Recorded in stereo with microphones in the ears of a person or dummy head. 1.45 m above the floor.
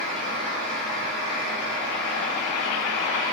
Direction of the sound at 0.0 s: Centre (ahead or behind).